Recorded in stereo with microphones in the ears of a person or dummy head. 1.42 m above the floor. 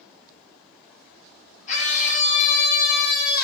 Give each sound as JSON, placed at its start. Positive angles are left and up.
{"t": 1.7, "sound": "a scream", "side_deg": 40, "distance_m": 5.0}